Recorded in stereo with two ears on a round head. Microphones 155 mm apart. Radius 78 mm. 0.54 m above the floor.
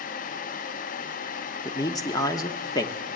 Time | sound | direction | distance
1.6 | a man speaking | 20° left (ahead or behind) | 1.0 m